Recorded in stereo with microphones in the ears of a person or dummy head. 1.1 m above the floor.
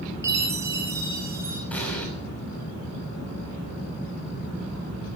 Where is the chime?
15° right (ahead or behind), 5 m.